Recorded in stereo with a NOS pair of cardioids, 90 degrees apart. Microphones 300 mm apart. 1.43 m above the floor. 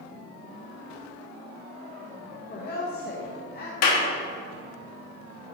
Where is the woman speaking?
35° left, 1.2 m.